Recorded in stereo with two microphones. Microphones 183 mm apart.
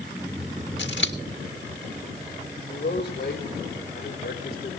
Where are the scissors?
75° left (ahead or behind), 1.7 m.